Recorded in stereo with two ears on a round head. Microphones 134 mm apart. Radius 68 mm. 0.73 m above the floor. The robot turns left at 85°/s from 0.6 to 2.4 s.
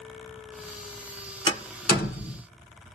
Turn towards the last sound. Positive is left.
turn(degrees=65)  # may be behind; listen again after turning